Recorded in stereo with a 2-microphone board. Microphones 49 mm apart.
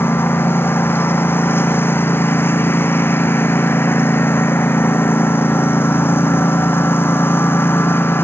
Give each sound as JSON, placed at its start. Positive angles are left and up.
{"t": 0.0, "sound": "a lawn mower", "side_deg": 50}